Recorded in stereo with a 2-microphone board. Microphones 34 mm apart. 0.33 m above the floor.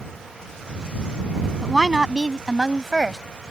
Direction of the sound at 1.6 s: 15° right (ahead or behind).